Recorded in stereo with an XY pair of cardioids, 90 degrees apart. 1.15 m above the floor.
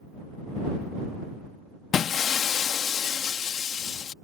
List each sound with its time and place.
1.9 s breaking glass: 60° left